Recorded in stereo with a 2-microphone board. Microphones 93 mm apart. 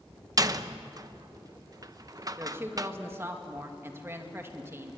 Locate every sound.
0.4 s a door slam: 40° right (ahead or behind), 0.9 m
2.4 s a woman speaking: 25° right (ahead or behind), 2.5 m